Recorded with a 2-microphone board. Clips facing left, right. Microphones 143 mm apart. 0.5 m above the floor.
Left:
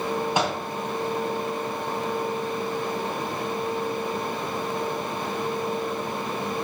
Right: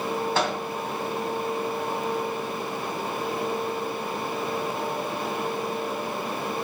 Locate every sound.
0.3 s a microwave: 15° left (ahead or behind), 3 m